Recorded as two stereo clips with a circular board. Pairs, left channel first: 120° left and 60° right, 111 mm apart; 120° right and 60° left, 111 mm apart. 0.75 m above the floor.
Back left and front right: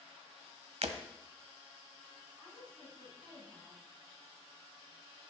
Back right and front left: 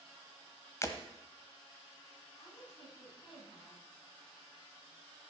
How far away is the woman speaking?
About 6.5 m.